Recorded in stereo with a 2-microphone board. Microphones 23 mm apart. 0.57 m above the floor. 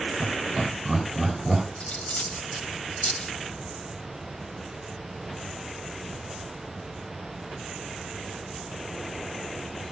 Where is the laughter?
10° right (ahead or behind), 7 m; by 1.6 s 20° right (ahead or behind), 8.5 m.